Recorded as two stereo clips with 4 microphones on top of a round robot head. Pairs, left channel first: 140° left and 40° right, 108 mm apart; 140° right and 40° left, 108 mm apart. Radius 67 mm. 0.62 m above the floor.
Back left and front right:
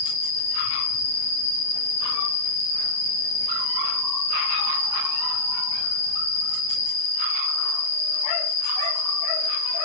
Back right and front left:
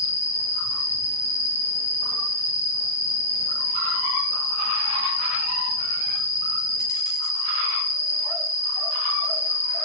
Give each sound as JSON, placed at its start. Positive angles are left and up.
{"t": 0.0, "sound": "an insect", "azimuth_deg": 55, "distance_m": 7.0}